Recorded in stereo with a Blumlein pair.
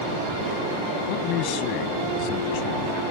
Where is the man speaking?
40° left.